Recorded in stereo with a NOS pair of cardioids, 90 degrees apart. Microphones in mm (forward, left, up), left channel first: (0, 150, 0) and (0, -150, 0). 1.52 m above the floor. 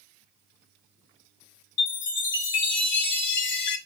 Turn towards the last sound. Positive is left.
turn(degrees=40)